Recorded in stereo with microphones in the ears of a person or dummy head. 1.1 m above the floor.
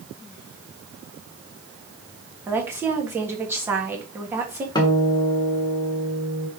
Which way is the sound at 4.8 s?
20° left (ahead or behind).